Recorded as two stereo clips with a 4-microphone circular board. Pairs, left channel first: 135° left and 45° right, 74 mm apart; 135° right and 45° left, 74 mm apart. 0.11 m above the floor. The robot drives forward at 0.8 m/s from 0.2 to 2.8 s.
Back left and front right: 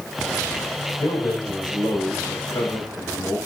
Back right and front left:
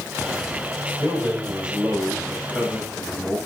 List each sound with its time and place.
1.0 s a man speaking: 115° left, 5.5 m; by 3.4 s 125° left, 6.5 m